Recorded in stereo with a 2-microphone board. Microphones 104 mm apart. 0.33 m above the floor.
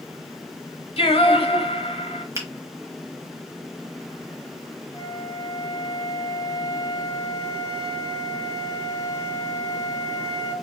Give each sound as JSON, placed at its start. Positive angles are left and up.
{"t": 1.0, "sound": "singing", "side_deg": 65, "distance_m": 0.7}
{"t": 2.4, "sound": "a finger snap", "side_deg": -25, "distance_m": 1.1}
{"t": 4.9, "sound": "a flute", "side_deg": 35, "distance_m": 0.8}